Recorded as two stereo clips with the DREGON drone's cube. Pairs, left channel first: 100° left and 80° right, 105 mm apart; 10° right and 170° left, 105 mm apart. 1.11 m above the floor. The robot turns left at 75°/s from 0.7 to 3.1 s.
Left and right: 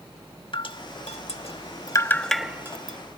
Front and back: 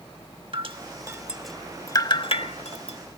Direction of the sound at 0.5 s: 135° left.